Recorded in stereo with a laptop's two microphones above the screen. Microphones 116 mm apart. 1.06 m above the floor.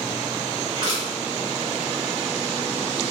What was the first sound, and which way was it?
Crushing, 40° right (ahead or behind).